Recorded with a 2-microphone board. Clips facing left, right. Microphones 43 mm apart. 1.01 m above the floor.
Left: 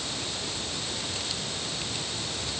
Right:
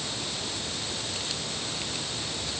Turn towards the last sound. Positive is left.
No sound to turn to.